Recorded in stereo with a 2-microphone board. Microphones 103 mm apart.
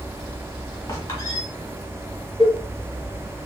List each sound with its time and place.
0.9 s a squeak: 30° left (ahead or behind), 1.9 m
2.4 s a cowbell: 60° right (ahead or behind), 1.1 m